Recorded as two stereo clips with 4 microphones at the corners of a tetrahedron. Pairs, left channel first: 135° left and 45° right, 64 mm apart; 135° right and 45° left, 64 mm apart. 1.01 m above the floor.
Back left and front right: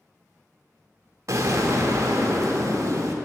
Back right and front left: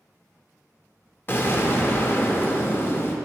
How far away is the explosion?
About 0.6 m.